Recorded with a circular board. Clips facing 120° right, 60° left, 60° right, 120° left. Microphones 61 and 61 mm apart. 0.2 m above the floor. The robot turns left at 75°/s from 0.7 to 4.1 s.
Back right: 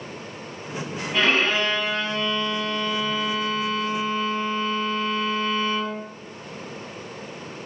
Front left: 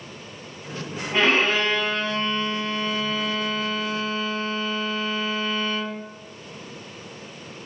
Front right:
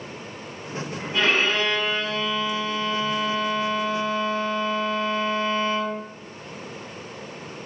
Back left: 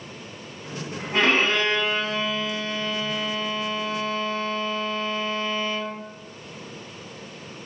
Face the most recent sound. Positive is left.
turn(degrees=-105)